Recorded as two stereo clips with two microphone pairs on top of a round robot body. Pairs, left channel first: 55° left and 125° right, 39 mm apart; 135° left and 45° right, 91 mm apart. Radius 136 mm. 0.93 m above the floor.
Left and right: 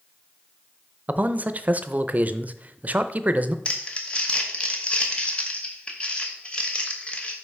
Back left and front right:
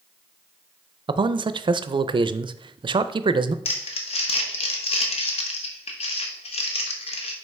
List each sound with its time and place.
1.1 s a man speaking: 75° right, 0.5 m
3.6 s crumpling: 120° left, 0.8 m